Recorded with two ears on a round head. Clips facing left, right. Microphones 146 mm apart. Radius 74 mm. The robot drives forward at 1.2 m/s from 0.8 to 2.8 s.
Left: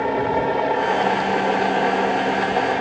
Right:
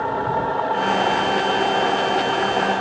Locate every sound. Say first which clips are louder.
0.0 s a helicopter: left 2 dB; 20° left (ahead or behind)